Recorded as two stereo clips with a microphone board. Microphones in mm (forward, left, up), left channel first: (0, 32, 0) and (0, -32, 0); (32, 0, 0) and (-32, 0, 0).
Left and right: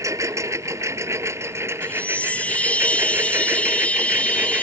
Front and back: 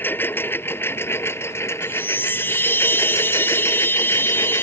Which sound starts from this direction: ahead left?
A chime, at 1.8 s.